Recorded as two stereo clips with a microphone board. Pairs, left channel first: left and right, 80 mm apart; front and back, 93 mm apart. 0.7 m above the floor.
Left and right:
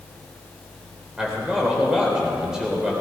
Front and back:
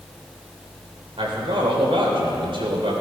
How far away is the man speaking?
About 3 m.